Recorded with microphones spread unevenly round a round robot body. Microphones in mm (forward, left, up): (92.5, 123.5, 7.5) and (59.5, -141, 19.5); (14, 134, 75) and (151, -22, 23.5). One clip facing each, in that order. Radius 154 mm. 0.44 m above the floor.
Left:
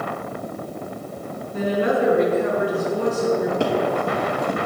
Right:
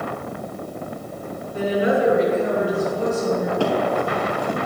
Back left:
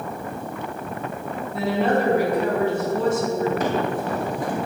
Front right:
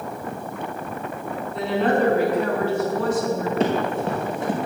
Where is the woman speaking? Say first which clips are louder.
Right 1 dB, even; 45° left, 5 m; by 3.5 s 70° left, 5.5 m.